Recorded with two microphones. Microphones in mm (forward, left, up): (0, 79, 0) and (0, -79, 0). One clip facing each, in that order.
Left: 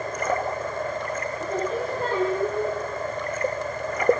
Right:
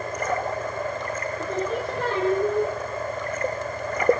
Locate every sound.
1.4 s singing: 75° right (ahead or behind), 5 m